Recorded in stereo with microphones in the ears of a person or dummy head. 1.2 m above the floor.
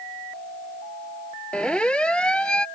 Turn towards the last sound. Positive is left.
turn(degrees=5)  # may be behind; listen again after turning